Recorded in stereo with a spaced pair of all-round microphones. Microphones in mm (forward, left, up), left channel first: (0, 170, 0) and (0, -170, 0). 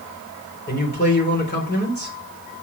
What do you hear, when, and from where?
0.7 s a man speaking: 30° left (ahead or behind), 3.5 m